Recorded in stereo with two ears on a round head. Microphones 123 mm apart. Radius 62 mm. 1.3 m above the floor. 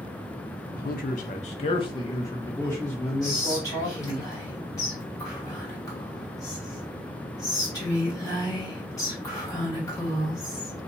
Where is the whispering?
25° left (ahead or behind), 2 m.